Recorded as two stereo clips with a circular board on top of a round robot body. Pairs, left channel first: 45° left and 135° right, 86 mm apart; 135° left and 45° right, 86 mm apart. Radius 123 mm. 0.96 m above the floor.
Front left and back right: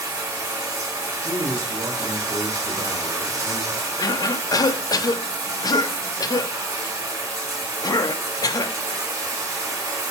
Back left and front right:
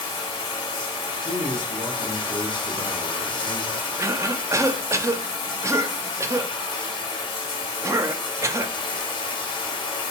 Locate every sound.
0.0 s running water: 165° left, 0.8 m
1.2 s a man speaking: 100° right, 1.7 m
4.0 s a cough: 5° left, 0.5 m